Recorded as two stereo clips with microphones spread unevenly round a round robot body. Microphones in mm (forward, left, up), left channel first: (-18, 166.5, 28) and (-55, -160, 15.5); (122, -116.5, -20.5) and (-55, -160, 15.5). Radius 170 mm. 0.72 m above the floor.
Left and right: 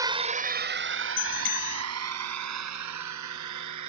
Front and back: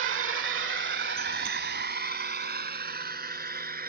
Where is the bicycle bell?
135° left.